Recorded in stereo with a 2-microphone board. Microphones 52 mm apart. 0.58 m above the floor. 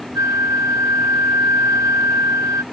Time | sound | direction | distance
0.1 | a flute | 75° right (ahead or behind) | ?